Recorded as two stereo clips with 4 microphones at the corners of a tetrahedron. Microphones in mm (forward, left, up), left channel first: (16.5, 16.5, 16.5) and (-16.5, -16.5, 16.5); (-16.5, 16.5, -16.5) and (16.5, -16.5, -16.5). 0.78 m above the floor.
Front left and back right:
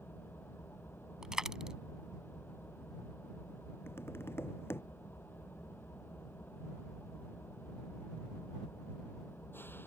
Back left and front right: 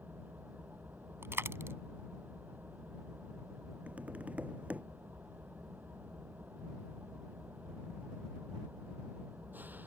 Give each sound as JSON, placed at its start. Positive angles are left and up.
{"t": 0.0, "sound": "an engine running", "azimuth_deg": 5}
{"t": 1.2, "sound": "a dropped coin", "azimuth_deg": -60}
{"t": 3.9, "sound": "tapping", "azimuth_deg": 15}